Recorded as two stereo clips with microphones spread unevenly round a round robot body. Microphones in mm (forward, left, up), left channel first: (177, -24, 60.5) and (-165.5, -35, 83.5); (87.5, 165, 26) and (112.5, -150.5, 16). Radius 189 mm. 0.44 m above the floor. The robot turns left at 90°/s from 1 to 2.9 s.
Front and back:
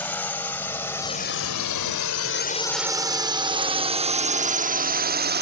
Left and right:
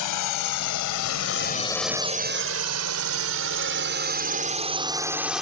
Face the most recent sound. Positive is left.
turn(degrees=-170)